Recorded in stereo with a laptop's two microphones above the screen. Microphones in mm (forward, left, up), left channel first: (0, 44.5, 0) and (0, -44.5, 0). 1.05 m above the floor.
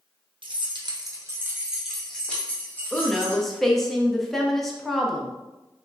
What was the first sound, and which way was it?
Keys jangling, 70° right (ahead or behind).